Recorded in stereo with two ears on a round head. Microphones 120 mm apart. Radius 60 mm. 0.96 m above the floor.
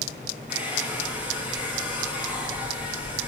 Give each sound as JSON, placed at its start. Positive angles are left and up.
{"t": 0.5, "sound": "a hair dryer", "side_deg": -10, "distance_m": 7.5}